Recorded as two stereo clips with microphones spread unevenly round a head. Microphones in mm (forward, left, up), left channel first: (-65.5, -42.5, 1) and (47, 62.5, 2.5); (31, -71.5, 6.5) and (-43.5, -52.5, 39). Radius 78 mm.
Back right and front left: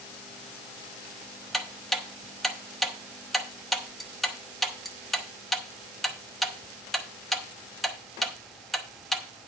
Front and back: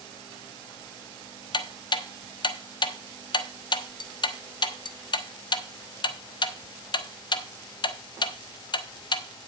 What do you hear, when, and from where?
1.5 s ticking: 45° right, 0.6 m